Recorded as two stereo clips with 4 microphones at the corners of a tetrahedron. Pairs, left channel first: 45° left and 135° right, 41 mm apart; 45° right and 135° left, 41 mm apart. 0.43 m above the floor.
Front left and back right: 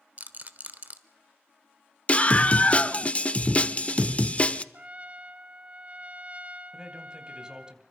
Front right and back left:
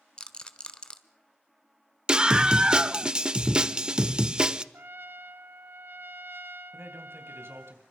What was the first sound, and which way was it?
A rattle, 105° right.